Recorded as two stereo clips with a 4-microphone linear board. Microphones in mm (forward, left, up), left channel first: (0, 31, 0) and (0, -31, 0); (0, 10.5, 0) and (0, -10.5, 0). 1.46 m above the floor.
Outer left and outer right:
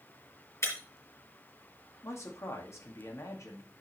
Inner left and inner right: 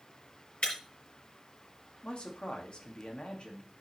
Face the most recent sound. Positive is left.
turn(degrees=55)  # may be behind; listen again after turning